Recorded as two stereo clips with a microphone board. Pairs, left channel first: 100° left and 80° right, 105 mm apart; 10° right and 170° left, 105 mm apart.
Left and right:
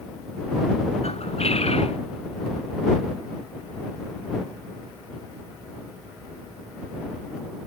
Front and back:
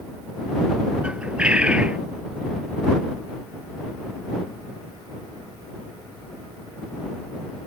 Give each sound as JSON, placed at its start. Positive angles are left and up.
{"t": 1.0, "sound": "a bird", "azimuth_deg": 90}